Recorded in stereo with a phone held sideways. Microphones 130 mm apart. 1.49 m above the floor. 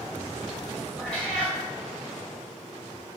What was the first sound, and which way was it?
A cat meowing, 5° left (ahead or behind).